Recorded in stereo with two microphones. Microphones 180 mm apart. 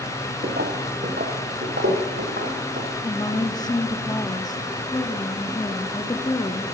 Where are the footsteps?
60° right (ahead or behind), 1.0 m; by 2.9 s 70° right (ahead or behind), 3 m.